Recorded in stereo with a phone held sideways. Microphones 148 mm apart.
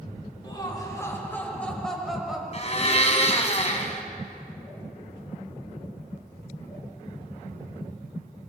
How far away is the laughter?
About 4 m.